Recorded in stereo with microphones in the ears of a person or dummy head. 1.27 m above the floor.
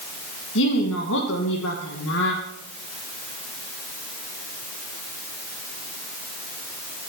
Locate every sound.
0.6 s a woman speaking: 70° left (ahead or behind), 1.3 m